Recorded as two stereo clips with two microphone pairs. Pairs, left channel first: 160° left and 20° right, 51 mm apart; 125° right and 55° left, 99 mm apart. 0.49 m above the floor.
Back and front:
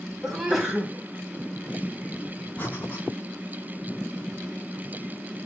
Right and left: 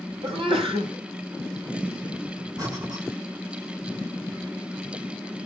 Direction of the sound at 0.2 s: 65° left.